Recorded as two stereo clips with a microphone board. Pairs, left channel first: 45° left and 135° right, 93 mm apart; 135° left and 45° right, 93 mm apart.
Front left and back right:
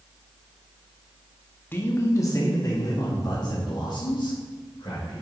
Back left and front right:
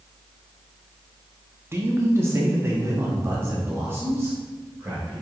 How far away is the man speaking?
About 1.1 m.